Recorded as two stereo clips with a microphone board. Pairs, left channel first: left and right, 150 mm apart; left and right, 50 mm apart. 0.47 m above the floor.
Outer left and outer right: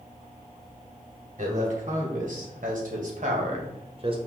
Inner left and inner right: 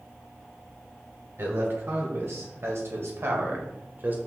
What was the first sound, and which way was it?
A man speaking, 60° right (ahead or behind).